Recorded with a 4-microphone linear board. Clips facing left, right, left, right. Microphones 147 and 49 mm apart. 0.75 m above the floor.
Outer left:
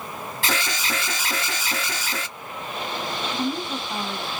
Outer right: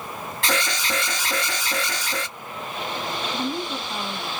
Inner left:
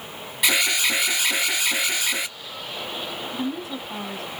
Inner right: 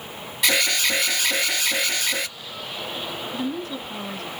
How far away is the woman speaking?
About 1.9 m.